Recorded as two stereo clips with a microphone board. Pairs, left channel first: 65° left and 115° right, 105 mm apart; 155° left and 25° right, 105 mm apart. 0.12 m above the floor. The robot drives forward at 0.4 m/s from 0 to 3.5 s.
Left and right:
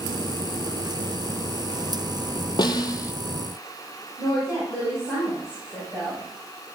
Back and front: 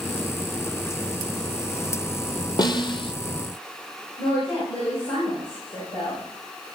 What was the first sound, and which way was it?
A snare drum, 110° left.